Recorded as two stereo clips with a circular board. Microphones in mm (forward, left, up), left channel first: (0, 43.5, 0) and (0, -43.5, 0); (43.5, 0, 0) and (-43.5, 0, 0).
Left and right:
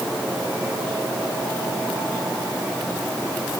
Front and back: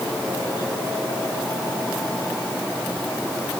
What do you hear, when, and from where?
Only background noise.